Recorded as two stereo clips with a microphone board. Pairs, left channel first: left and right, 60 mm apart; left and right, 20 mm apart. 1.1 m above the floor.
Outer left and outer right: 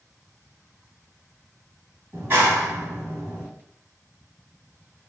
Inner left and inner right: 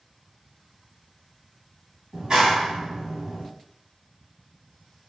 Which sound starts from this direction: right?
A clap, at 2.1 s.